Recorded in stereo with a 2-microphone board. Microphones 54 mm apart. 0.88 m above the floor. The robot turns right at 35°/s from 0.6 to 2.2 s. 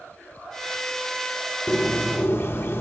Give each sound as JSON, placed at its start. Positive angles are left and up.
{"t": 1.7, "sound": "a bird", "side_deg": 25, "distance_m": 0.7}